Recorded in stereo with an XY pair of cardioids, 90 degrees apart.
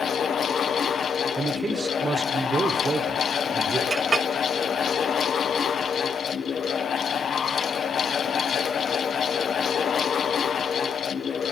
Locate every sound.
0.0 s a fan: 65° left, 1.1 m
1.4 s a man speaking: 45° right, 1.5 m
3.9 s a clink: 50° right, 1.1 m